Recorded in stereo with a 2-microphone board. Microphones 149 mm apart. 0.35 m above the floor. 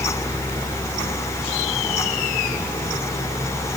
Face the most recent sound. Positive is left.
No sound to turn to.